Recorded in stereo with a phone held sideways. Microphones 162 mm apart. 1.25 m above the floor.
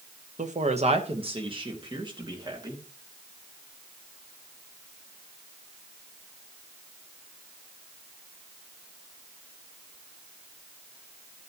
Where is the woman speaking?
50° right (ahead or behind), 0.9 m; by 2.8 s 25° right (ahead or behind), 2.5 m.